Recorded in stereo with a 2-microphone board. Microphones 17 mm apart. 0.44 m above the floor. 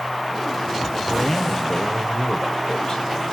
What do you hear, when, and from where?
1.1 s a man speaking: 20° left (ahead or behind), 1.3 m; by 3.0 s 55° left (ahead or behind), 2 m